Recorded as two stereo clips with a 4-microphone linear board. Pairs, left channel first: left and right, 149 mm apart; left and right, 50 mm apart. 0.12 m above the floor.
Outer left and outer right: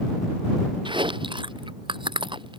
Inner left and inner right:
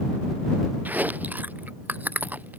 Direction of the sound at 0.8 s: 35° right (ahead or behind).